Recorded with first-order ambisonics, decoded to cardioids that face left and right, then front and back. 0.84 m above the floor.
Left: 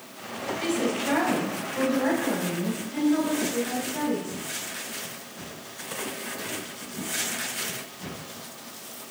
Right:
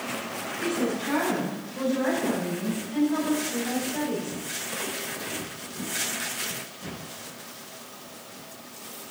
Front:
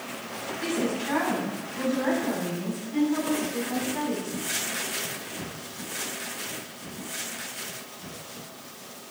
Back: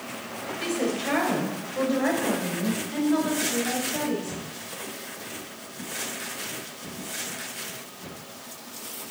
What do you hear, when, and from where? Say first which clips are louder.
0.6 s a woman speaking: left 1 dB, back 1 dB; 155° left, 4 m; by 4.4 s 160° right, 5.5 m